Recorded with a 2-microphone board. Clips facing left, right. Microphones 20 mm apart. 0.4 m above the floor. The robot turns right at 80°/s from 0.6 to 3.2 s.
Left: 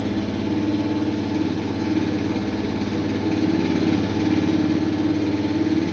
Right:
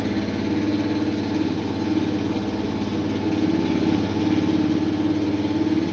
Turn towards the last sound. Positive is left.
turn(degrees=135)